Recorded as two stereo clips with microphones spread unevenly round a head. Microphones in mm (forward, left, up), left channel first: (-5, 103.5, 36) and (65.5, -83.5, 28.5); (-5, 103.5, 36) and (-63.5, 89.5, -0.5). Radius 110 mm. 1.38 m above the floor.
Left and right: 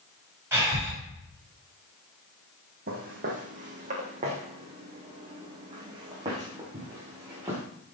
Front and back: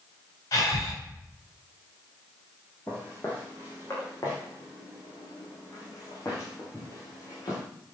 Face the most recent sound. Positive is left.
turn(degrees=5)